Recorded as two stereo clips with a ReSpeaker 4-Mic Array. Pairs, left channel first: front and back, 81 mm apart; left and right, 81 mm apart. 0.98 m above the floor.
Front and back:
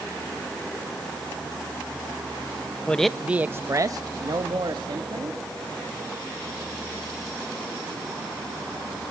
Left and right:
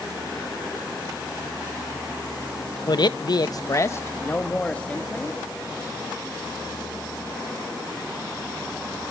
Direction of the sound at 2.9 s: 75° left.